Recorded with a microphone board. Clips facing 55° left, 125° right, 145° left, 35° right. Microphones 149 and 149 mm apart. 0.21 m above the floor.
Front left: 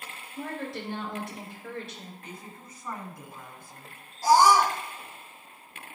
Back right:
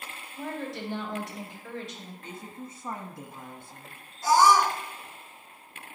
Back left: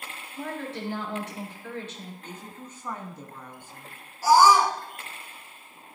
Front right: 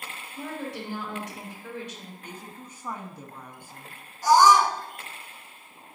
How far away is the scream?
About 1.6 m.